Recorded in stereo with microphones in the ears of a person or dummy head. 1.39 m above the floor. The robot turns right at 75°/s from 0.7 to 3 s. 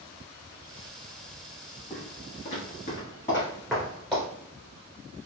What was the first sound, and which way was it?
Footsteps, centre (ahead or behind).